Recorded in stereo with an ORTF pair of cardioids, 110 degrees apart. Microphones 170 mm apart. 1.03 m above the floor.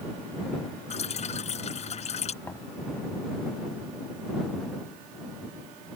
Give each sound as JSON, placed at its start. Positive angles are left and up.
{"t": 0.9, "sound": "dripping", "azimuth_deg": 40}
{"t": 2.4, "sound": "knocking", "azimuth_deg": 15}